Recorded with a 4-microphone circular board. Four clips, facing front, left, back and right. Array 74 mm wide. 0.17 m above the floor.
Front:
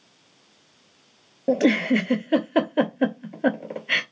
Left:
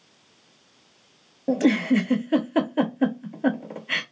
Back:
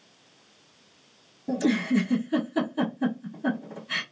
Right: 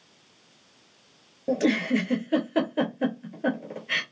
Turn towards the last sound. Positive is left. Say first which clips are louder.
# left 3 dB, front 5 dB
turn(degrees=5)